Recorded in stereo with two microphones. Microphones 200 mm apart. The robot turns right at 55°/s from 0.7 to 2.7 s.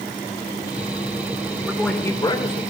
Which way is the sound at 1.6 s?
10° right.